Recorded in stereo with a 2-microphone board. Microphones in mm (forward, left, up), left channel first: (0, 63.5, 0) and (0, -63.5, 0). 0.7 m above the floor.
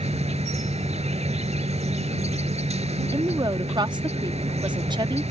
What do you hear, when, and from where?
0.0 s an insect: 60° right (ahead or behind)
3.1 s a woman speaking: 35° right (ahead or behind)